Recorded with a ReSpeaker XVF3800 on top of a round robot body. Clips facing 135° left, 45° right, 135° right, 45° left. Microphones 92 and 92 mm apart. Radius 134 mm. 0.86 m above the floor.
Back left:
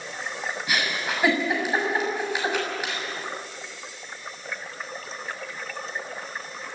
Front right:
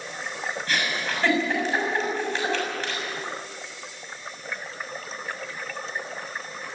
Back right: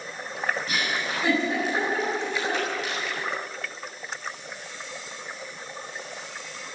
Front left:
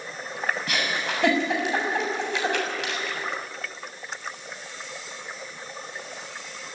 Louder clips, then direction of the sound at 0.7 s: Back left 1 dB, front left 1 dB; 55° left.